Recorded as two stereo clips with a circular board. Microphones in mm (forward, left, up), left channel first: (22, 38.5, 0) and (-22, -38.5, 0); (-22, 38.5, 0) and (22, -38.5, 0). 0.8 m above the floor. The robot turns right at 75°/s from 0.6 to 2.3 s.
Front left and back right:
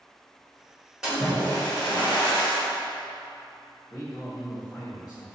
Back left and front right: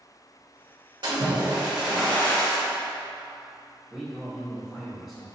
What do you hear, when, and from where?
1.0 s a splash: 40° right, 1.5 m; by 2.6 s 55° left, 1.5 m
3.9 s a man speaking: 15° left, 2.0 m